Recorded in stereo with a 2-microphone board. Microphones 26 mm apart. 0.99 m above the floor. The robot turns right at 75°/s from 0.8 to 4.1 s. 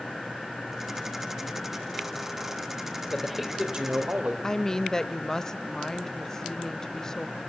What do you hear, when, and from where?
3.1 s a man speaking: 160° left, 3.5 m; by 4.3 s 125° right, 3.5 m
4.4 s a woman speaking: 20° left (ahead or behind), 1.0 m